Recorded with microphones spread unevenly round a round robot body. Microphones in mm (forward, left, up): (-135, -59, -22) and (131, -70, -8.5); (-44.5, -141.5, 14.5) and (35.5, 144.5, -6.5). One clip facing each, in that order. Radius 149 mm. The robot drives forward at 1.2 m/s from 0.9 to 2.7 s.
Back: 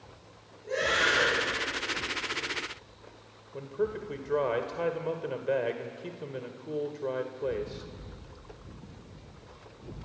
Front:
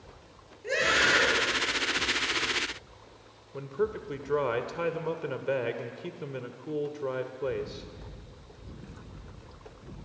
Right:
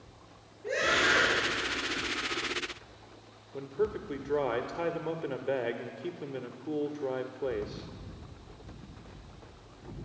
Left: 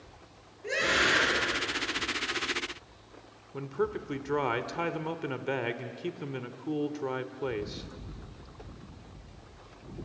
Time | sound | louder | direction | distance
0.6 | a scream | front 1 dB, even | 15° left | 8 m
3.5 | a man speaking | front 1 dB, even | 65° left | 1.6 m